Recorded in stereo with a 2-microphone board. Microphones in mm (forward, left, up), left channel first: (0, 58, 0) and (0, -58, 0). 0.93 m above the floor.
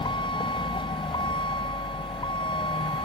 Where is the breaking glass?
No breaking glass in this recording.